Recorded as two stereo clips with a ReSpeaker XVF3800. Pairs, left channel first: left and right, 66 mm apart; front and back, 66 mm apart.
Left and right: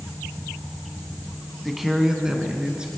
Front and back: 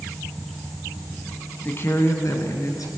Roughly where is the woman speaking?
Ahead.